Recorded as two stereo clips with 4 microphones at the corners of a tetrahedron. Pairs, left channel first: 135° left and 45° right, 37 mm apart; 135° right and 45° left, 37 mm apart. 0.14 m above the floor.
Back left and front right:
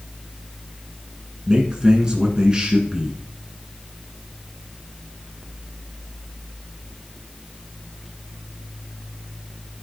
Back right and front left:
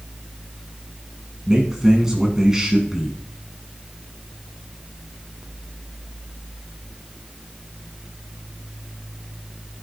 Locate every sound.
1.5 s a man speaking: 10° right, 1.3 m